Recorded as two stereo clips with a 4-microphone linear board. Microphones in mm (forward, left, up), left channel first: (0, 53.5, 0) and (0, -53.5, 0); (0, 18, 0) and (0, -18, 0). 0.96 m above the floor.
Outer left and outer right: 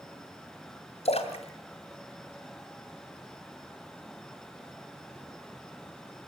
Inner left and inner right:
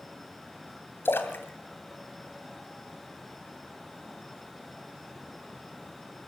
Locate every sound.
1.1 s a splash: 80° left, 2.5 m